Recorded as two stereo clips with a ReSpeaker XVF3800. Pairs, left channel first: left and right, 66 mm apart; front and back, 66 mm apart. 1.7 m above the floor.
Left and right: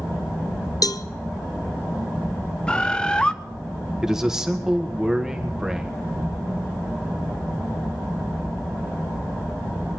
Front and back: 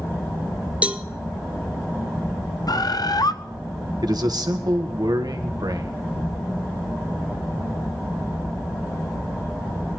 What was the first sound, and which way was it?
A cowbell, 110° left.